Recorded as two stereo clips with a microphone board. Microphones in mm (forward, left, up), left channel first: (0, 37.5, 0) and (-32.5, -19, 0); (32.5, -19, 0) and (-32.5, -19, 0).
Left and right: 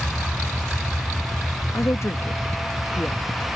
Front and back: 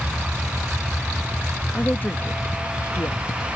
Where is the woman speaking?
55° left; by 3.2 s straight ahead.